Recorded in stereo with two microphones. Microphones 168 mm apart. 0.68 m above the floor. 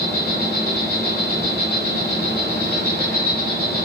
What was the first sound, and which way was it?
An insect, 65° right (ahead or behind).